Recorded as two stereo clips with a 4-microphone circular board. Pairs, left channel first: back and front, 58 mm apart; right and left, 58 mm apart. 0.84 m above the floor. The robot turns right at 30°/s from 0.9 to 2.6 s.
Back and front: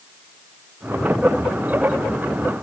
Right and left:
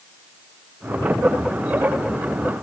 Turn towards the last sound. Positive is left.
No sound to turn to.